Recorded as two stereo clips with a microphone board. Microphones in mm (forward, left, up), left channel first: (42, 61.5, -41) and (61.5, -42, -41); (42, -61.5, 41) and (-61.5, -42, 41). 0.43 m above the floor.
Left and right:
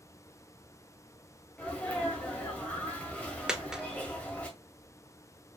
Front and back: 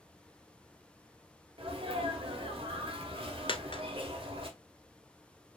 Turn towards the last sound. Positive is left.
turn(degrees=5)